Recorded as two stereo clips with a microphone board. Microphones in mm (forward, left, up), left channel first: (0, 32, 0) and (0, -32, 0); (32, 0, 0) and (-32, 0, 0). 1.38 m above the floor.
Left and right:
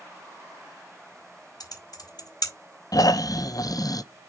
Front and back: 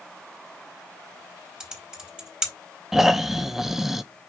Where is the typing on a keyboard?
100° left, 3 m.